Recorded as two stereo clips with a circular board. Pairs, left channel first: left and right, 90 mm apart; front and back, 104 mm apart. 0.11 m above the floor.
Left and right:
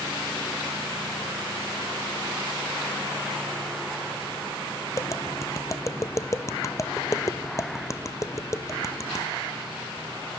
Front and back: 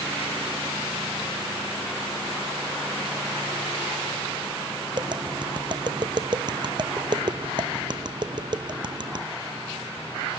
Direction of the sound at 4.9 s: 140° left.